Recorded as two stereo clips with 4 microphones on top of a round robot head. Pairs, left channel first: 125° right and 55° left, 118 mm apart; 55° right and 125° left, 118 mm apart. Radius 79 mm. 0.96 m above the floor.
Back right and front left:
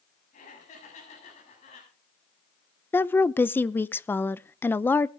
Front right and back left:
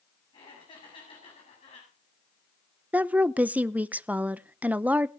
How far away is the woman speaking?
About 0.6 m.